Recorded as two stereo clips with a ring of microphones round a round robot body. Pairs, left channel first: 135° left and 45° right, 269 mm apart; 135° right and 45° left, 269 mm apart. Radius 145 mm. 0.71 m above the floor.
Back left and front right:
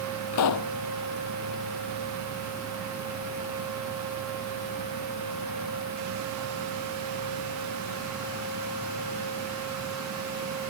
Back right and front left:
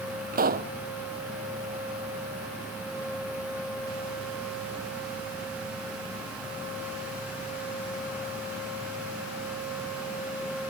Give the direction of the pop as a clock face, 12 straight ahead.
9 o'clock.